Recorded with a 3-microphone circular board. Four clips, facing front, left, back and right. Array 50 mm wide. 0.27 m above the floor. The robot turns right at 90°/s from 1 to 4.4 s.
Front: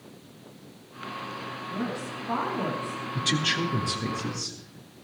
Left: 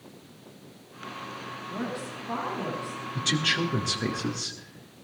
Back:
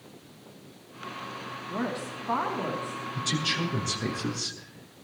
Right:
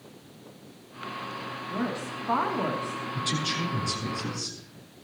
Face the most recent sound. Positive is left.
turn(degrees=135)